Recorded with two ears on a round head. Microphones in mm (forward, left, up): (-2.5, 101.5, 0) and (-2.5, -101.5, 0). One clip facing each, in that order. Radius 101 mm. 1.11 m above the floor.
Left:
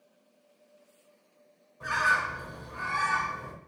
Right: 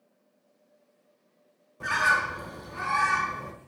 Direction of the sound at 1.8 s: 65° right (ahead or behind).